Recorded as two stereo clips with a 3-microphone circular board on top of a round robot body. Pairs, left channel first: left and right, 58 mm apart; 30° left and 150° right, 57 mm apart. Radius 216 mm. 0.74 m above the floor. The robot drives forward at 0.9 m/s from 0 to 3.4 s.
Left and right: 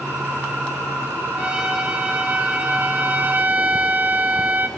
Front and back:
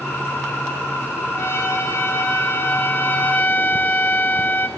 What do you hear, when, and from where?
1.3 s a trumpet: 15° right, 3.5 m; by 4.7 s 30° right, 2.0 m